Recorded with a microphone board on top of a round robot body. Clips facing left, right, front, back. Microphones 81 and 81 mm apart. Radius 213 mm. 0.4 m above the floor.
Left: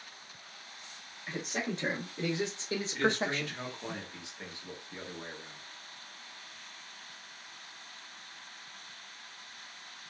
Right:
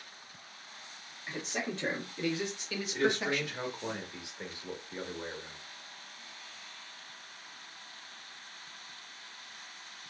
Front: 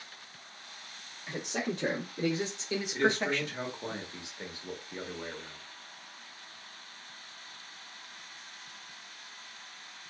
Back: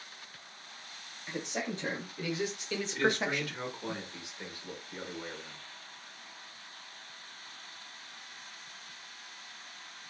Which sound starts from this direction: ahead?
A man speaking, at 1.3 s.